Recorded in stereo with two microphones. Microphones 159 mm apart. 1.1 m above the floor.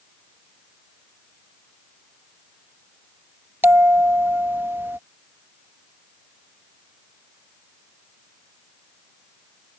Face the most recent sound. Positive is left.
turn(degrees=-15)  # may be behind; listen again after turning